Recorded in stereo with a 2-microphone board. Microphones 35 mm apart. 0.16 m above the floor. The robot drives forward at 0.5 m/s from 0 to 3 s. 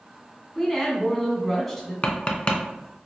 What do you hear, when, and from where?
0.6 s a woman speaking: 5° left (ahead or behind), 1.1 m
2.0 s tapping: 35° left (ahead or behind), 0.6 m; by 2.6 s 30° left (ahead or behind), 0.7 m